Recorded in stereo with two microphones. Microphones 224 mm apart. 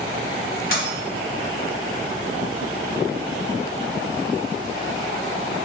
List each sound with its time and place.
0.7 s a dropped coin: 65° left (ahead or behind), 0.9 m